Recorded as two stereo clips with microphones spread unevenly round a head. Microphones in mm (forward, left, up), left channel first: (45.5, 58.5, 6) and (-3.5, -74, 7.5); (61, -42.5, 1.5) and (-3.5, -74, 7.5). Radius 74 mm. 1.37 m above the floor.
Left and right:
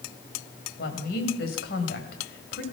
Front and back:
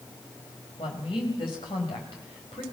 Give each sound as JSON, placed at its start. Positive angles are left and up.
{"t": 0.8, "sound": "a woman speaking", "azimuth_deg": 60, "distance_m": 6.5}